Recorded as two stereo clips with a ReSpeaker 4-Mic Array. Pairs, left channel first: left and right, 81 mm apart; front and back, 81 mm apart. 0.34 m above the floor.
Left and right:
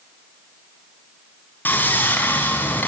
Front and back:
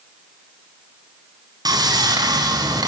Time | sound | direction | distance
1.6 | sawing | 155° left | 3.5 m